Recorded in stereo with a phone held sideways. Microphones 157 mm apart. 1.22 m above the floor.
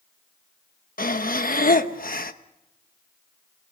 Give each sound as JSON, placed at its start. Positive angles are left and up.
{"t": 1.0, "sound": "breathing", "side_deg": 65, "distance_m": 1.1}